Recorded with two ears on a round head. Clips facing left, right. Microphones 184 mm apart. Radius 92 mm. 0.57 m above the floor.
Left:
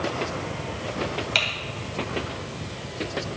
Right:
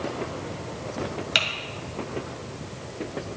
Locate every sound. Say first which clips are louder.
1.4 s typing on a keyboard: left 1 dB; 15° right (ahead or behind), 2 m